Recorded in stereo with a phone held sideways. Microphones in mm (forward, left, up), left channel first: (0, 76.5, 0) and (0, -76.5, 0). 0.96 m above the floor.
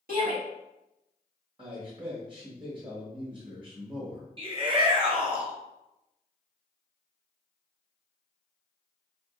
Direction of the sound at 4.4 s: 35° right (ahead or behind).